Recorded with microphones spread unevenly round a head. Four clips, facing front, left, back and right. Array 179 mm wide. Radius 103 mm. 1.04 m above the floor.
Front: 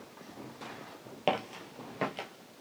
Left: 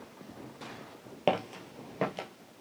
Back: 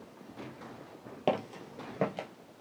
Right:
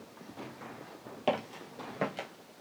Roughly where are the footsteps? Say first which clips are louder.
Left 2 dB, even; left.